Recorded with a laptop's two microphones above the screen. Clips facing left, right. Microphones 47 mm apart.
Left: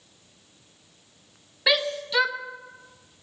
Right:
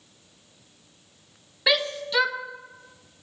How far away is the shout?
About 0.8 m.